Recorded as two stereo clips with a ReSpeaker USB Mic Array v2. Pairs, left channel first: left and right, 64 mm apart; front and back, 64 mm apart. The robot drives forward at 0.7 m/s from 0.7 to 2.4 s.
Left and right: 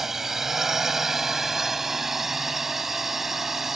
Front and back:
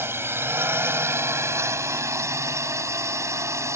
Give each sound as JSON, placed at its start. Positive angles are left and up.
{"t": 0.0, "sound": "a drone", "azimuth_deg": -170}